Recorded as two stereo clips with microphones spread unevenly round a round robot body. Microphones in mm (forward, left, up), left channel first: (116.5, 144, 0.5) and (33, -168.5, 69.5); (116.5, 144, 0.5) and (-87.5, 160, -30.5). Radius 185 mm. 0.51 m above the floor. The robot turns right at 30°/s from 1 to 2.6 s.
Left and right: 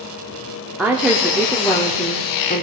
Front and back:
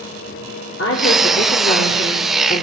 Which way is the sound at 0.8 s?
10° right.